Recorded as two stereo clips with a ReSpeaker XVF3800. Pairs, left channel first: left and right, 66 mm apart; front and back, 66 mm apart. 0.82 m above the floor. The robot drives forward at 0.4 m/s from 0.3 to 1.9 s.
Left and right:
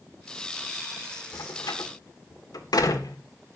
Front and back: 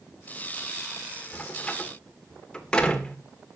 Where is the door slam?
70° left, 2.0 m; by 3.2 s 80° left, 1.9 m.